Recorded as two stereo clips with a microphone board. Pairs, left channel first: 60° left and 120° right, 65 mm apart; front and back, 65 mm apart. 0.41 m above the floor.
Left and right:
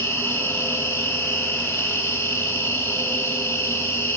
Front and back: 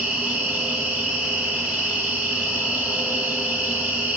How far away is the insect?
About 1.0 m.